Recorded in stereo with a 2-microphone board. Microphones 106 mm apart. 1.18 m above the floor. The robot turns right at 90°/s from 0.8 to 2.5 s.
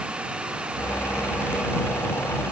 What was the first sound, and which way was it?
Only background noise.